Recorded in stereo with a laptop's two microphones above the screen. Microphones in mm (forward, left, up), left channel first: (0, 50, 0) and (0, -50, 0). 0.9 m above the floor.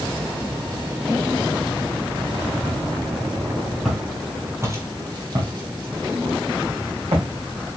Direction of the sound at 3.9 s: Centre (ahead or behind).